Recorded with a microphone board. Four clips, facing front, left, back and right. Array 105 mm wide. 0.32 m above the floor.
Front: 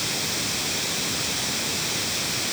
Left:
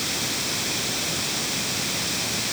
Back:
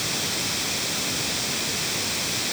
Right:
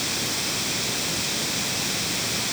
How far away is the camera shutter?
I don't hear a camera shutter.